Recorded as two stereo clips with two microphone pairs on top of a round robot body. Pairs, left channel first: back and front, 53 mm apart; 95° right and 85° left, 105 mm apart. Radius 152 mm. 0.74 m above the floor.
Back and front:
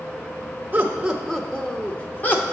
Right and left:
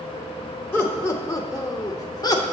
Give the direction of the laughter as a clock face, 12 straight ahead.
2 o'clock.